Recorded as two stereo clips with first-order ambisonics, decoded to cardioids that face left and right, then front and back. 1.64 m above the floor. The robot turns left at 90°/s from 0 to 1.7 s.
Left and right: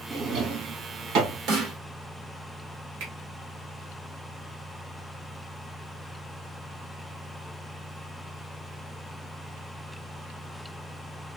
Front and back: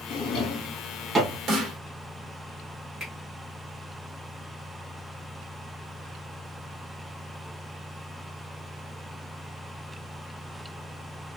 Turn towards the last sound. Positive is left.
turn(degrees=-95)